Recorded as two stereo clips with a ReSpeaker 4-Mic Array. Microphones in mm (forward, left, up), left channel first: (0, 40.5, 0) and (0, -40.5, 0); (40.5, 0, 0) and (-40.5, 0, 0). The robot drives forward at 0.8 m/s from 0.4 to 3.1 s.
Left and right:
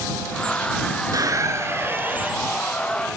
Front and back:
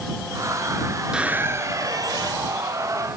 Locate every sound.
1.1 s a squeak: 105° right, 0.6 m; by 2.5 s 160° right, 1.4 m